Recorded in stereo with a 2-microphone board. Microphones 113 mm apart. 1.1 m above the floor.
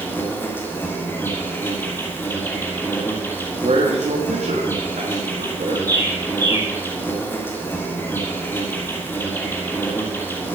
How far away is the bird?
About 3.5 m.